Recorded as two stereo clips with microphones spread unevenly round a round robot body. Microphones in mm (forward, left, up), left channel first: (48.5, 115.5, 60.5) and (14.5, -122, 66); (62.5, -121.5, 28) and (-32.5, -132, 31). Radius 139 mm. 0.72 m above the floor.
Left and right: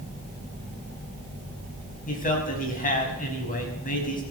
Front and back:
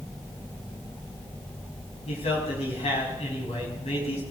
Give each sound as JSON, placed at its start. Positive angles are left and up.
{"t": 2.1, "sound": "a man speaking", "azimuth_deg": 25, "distance_m": 5.0}